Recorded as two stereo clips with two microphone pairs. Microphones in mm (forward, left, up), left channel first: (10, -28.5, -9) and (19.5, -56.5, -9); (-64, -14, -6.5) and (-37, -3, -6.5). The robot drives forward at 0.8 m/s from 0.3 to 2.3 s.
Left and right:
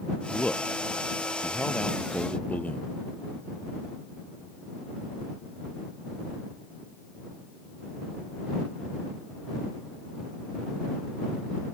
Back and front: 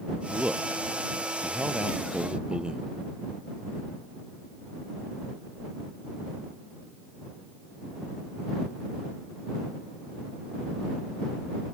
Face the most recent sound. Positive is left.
turn(degrees=80)